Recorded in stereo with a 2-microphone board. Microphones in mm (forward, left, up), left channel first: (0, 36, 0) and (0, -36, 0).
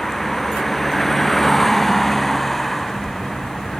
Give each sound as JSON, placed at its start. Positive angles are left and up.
{"t": 0.0, "sound": "a vehicle", "side_deg": 5}